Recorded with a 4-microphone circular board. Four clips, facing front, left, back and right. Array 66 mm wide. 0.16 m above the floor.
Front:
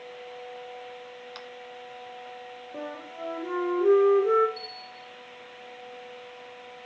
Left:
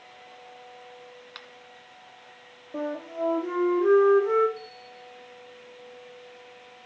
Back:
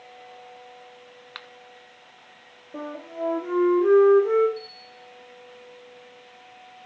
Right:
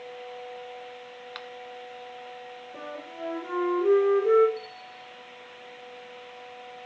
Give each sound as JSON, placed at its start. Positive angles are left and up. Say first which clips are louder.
{"t": 1.4, "sound": "a finger snap", "louder": "right 5 dB, back 5 dB", "azimuth_deg": -160, "distance_m": 1.0}
{"t": 2.7, "sound": "a flute", "louder": "left 9 dB, back 5 dB", "azimuth_deg": 140, "distance_m": 5.5}
{"t": 4.6, "sound": "a bell", "louder": "right 2 dB, even", "azimuth_deg": 160, "distance_m": 6.5}